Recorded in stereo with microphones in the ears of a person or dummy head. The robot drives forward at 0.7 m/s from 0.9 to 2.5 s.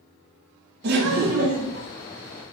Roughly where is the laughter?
Right.